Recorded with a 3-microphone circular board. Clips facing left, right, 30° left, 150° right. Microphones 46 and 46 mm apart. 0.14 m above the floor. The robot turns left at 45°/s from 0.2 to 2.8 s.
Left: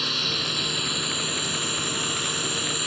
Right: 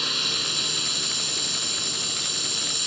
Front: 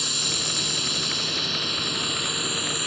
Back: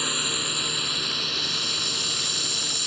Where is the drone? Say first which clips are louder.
Left 1 dB, back 2 dB; 175° left; by 2.9 s 60° left.